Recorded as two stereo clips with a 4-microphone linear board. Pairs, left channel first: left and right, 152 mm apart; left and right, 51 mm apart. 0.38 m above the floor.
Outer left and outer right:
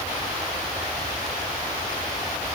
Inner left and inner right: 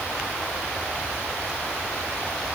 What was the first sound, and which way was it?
Only background noise.